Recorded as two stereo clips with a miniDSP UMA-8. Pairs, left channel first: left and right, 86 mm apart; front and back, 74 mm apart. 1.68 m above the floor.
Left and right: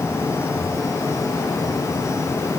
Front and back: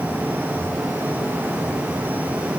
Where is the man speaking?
No man speaking in this recording.